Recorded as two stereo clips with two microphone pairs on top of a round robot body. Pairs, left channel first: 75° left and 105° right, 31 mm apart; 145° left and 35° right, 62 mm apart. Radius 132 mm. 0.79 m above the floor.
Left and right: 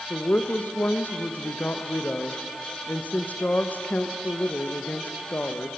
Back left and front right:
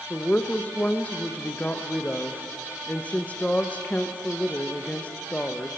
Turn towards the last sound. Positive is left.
turn(degrees=80)